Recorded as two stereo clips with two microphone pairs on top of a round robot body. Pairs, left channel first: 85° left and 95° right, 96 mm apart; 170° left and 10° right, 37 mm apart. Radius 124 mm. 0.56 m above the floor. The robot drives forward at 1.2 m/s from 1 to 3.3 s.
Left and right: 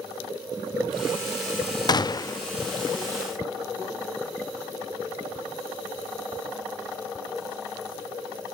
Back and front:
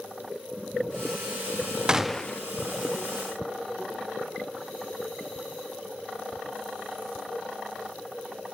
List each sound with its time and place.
1.9 s a gunshot: 65° left, 0.7 m; by 2.4 s 135° left, 0.8 m